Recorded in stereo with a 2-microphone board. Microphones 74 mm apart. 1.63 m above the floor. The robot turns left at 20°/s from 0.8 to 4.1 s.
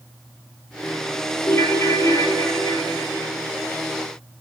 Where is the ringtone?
125° left, 2.5 m; by 3.3 s 90° left, 2.5 m.